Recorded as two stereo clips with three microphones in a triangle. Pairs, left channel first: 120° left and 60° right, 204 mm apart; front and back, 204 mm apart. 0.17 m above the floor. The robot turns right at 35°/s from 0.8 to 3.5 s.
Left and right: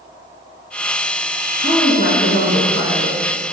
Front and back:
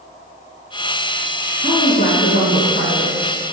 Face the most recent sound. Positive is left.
turn(degrees=-155)